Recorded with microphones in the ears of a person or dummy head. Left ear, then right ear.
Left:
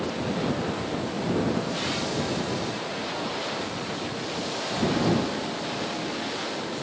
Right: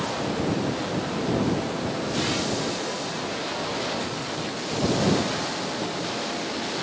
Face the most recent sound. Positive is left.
No sound to turn to.